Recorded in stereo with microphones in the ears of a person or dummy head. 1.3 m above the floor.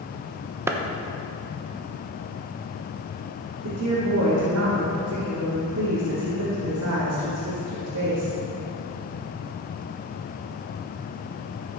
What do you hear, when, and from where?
0.7 s a clap: 10° right (ahead or behind), 0.8 m
3.6 s a woman speaking: 80° right, 3 m